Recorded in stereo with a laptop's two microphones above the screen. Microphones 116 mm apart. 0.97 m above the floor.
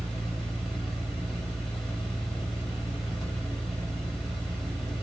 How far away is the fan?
About 1.1 m.